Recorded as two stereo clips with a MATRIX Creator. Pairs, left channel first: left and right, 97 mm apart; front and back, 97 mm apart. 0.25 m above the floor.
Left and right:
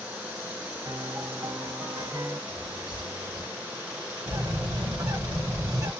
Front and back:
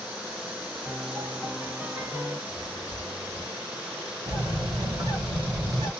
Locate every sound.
0.8 s a piano: 130° right, 2 m
2.5 s a bird: 115° right, 2.5 m
4.3 s a bird: 135° right, 1.7 m